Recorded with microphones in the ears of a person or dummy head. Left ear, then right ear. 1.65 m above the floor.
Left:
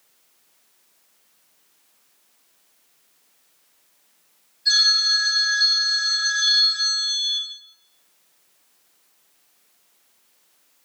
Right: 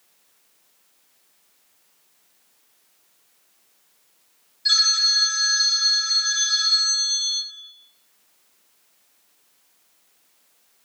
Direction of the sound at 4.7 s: 60° right (ahead or behind).